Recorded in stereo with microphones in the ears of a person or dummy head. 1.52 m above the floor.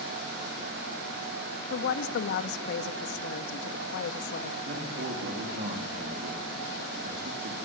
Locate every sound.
1.7 s a woman speaking: 70° left (ahead or behind), 1.8 m
4.7 s a man speaking: 45° right (ahead or behind), 3 m